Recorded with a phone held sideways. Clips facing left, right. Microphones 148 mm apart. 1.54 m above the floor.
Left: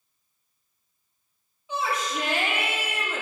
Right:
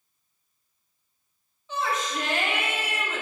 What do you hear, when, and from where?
1.7 s a shout: 10° left (ahead or behind), 3.5 m